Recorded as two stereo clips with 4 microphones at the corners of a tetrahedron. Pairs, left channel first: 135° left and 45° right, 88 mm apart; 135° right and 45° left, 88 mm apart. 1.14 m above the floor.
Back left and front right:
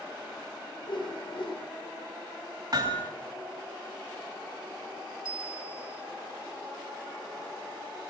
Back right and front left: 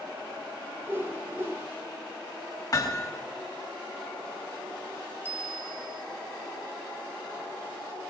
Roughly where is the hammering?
Right.